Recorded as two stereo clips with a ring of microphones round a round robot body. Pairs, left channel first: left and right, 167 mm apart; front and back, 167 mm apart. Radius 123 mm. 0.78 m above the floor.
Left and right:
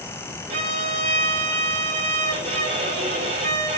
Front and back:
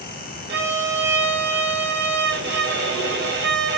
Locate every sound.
0.5 s a violin: 145° right, 4.5 m